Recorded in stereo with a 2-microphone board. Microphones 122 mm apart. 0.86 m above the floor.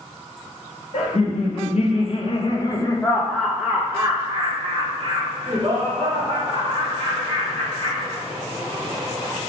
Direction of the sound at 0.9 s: 65° left (ahead or behind).